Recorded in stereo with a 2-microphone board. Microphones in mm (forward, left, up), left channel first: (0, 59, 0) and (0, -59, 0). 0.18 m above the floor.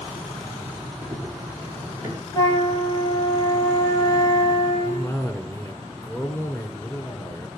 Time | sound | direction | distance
1.0 | running footsteps | 10° right (ahead or behind) | 3 m
2.3 | a flute | 30° left (ahead or behind) | 5 m
4.8 | a cough | 20° left (ahead or behind) | 1.8 m